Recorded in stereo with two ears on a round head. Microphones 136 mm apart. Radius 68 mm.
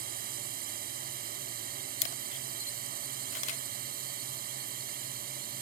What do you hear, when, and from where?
0.0 s a drone: 65° right (ahead or behind)
2.0 s a camera shutter: 50° left (ahead or behind)